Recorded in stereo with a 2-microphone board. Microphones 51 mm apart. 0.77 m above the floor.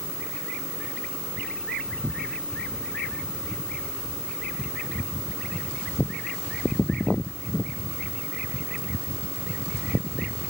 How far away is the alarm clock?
I don't hear an alarm clock.